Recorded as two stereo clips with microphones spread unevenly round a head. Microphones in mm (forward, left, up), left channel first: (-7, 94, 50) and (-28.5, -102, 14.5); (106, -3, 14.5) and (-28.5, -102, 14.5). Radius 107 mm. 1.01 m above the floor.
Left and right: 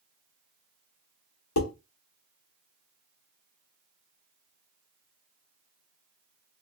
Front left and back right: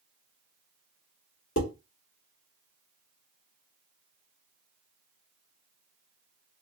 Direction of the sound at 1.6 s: 75° left.